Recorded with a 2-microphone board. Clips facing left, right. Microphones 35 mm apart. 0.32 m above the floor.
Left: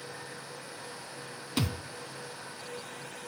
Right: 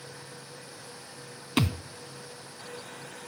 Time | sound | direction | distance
1.6 | a thud | 55° right (ahead or behind) | 0.7 m